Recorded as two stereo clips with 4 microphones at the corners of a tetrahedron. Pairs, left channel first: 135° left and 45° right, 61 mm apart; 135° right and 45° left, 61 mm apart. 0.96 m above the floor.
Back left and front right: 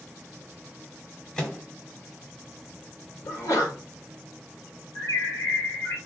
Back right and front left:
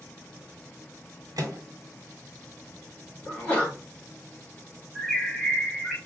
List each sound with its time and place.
1.4 s a microwave: 60° left, 1.2 m
3.2 s a sneeze: 165° left, 1.6 m
5.0 s a bird: 140° left, 1.6 m